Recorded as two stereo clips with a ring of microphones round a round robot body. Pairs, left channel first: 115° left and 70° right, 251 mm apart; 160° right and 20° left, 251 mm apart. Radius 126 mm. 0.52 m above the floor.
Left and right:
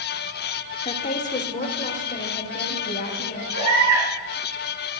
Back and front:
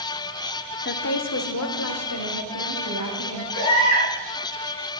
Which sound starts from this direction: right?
A baby crying, at 3.5 s.